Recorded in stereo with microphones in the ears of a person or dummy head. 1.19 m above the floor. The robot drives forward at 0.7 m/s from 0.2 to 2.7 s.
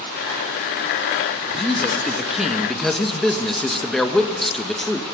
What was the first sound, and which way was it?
A man speaking, centre (ahead or behind).